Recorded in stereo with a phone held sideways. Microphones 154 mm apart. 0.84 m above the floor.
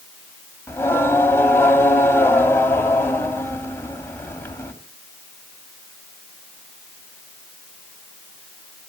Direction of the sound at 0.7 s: 15° left (ahead or behind).